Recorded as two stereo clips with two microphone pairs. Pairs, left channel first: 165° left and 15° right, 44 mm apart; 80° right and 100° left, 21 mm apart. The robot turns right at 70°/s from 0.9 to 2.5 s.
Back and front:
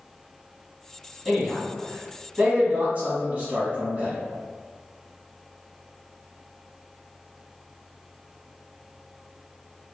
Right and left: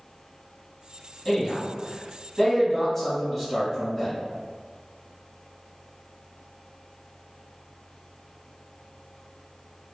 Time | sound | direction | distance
1.2 | a man speaking | 105° right | 1.2 m